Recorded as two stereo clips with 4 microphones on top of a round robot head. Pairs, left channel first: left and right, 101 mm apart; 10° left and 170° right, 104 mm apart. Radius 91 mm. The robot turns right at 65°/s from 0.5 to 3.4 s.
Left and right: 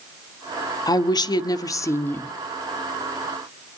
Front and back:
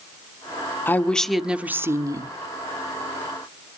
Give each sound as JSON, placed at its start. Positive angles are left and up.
{"t": 0.9, "sound": "a woman speaking", "azimuth_deg": 70, "distance_m": 1.4}